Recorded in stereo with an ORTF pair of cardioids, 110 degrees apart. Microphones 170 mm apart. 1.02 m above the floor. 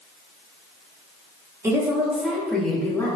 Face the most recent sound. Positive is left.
turn(degrees=15)